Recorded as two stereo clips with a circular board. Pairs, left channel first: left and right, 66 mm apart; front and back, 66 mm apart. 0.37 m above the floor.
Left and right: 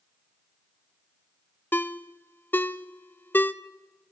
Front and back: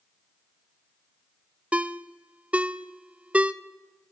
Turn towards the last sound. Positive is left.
turn(degrees=125)